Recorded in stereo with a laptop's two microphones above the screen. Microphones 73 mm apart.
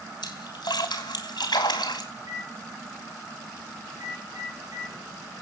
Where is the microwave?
55° right (ahead or behind), 6 m.